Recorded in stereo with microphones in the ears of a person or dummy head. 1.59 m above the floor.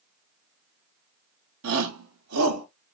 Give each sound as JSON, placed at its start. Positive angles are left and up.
{"t": 1.6, "sound": "a shout", "side_deg": -70, "distance_m": 1.1}